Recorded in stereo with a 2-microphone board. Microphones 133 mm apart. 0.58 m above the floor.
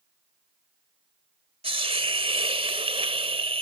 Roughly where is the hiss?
Right.